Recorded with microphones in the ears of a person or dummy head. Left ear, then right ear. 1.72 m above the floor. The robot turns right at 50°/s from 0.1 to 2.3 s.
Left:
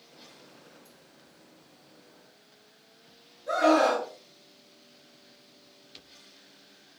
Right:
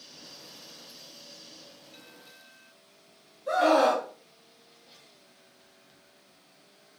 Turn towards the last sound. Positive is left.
turn(degrees=-50)  # may be behind; listen again after turning